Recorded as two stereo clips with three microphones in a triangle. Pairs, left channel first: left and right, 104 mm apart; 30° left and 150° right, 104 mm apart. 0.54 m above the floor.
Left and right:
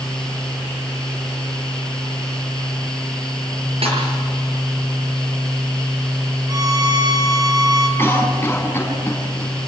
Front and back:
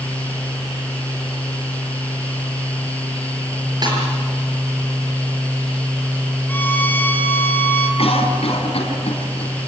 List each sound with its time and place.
3.8 s a snare drum: 105° right, 6.5 m
6.5 s a violin: 40° right, 3 m
8.0 s a cough: 20° left, 4 m